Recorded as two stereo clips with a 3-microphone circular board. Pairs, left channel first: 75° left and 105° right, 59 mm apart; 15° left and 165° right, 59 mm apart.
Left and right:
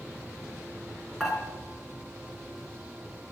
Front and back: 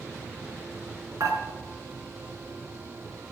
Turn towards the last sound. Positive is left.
turn(degrees=170)